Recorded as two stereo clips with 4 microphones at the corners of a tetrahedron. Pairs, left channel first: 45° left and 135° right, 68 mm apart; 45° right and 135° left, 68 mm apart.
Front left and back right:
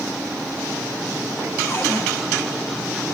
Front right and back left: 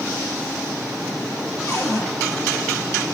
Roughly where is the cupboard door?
Ahead.